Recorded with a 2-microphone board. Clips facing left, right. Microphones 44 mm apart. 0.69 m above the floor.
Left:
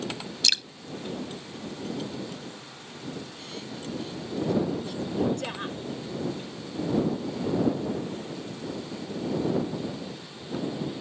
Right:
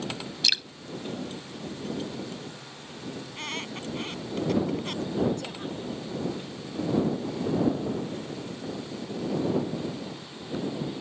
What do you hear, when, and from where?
0.4 s dripping: 5° right (ahead or behind)
3.2 s a squeak: 70° right (ahead or behind)
5.4 s a woman speaking: 55° left (ahead or behind)